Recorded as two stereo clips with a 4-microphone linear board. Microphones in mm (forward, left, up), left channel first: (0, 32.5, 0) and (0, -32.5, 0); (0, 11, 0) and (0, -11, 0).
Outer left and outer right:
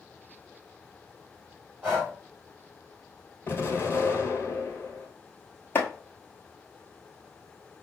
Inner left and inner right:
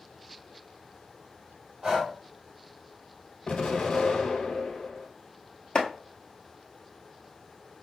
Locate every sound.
1.8 s breathing: 20° right (ahead or behind), 2.5 m
3.5 s an explosion: 40° left (ahead or behind), 1.4 m
5.8 s chopping: 35° left (ahead or behind), 0.9 m